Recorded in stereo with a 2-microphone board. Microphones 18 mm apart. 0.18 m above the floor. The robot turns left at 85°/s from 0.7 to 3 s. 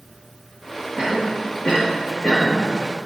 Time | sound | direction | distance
1.0 | a cough | 15° right (ahead or behind) | 4 m